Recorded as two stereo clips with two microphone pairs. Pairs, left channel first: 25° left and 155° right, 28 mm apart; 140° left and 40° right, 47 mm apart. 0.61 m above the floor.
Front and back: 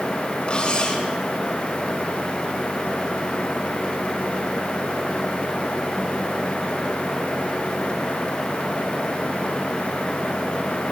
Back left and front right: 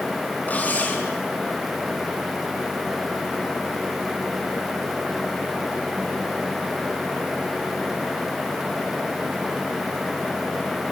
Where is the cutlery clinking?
85° left, 3.5 m.